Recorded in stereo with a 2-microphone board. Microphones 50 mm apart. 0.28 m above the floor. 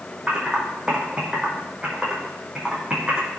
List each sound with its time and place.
0.3 s typing on a keyboard: 20° right (ahead or behind), 4 m